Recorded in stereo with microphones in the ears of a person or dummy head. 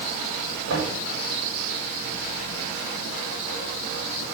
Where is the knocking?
65° right (ahead or behind), 5.5 m.